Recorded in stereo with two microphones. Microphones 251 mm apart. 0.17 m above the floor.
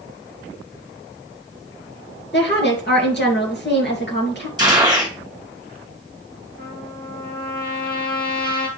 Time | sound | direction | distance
2.3 | a woman speaking | 45° left (ahead or behind) | 2.5 m
4.6 | a gunshot | 15° right (ahead or behind) | 2.5 m
6.6 | a trumpet | 40° left (ahead or behind) | 2.5 m